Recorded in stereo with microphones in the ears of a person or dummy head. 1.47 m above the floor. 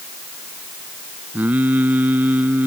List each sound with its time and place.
1.3 s singing: 10° right (ahead or behind)